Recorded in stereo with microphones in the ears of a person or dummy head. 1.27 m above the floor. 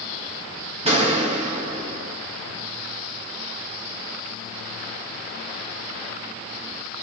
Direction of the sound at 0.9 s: 30° right (ahead or behind).